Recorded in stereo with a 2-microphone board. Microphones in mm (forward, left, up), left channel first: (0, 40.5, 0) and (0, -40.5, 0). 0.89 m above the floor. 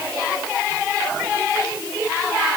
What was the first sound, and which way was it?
Only background noise.